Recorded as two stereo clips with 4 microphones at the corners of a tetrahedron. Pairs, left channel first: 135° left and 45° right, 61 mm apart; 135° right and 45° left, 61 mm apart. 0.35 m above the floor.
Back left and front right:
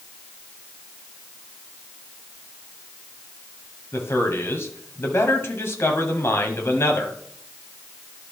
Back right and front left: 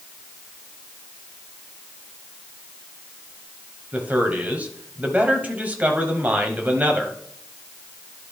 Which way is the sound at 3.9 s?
105° left.